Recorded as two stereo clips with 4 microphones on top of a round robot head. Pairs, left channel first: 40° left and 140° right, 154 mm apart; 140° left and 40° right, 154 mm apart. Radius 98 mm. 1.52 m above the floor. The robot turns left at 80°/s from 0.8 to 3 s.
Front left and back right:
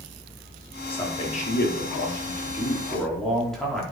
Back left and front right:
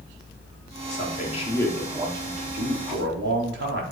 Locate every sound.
0.9 s a man speaking: 120° left, 4.5 m; by 3.8 s 45° right, 4.5 m